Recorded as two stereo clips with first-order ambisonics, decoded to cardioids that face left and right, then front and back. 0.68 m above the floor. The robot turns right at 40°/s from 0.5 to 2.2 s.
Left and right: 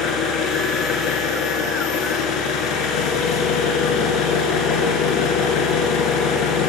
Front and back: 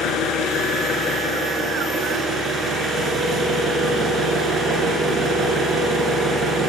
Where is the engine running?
45° left, 2.5 m; by 6.7 s 110° left, 2.5 m.